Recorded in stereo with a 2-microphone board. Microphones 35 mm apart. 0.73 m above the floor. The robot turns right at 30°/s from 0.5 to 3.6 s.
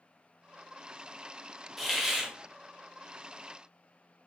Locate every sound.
1.8 s a hiss: 5° right (ahead or behind), 0.6 m; by 2.3 s 15° right (ahead or behind), 0.6 m